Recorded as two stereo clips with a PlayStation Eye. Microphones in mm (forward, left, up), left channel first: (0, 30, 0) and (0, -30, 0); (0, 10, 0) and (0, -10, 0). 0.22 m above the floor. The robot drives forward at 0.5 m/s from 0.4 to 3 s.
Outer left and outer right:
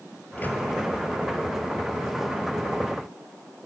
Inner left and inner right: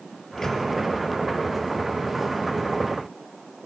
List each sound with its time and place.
0.4 s a microwave: 30° left (ahead or behind), 4.5 m